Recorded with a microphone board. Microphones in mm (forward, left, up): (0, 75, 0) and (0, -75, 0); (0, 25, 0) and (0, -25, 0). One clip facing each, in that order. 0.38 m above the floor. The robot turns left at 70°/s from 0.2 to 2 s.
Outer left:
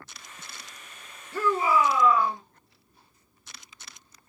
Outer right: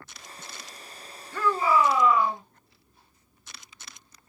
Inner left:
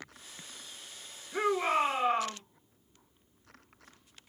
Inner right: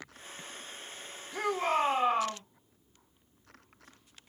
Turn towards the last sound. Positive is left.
turn(degrees=-5)